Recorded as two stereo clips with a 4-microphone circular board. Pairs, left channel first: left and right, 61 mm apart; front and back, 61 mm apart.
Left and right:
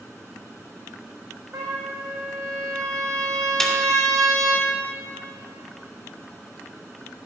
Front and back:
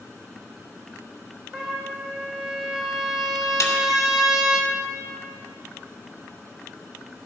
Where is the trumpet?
95° right, 2 m.